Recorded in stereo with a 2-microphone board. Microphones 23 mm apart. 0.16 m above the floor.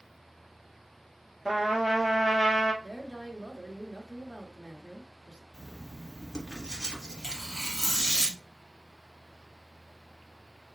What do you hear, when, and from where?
1.4 s a trumpet: 10° right (ahead or behind), 1.5 m
2.8 s a woman speaking: 30° right (ahead or behind), 1.2 m
5.5 s writing: 15° right (ahead or behind), 1.8 m
7.2 s tearing paper: 10° left (ahead or behind), 2.5 m